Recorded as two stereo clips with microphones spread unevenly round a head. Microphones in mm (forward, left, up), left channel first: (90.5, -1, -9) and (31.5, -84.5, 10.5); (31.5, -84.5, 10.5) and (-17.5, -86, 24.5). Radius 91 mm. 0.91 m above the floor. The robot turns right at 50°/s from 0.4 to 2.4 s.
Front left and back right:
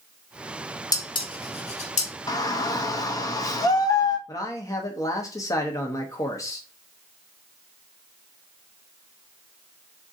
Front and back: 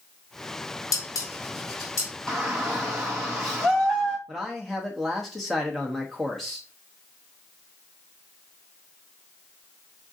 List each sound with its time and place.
0.9 s dishes clattering: straight ahead, 1.0 m; by 2.1 s 60° left, 1.0 m
2.3 s a shout: 60° left, 0.7 m; by 4.2 s 65° left, 0.7 m
4.3 s a man speaking: 70° left, 0.8 m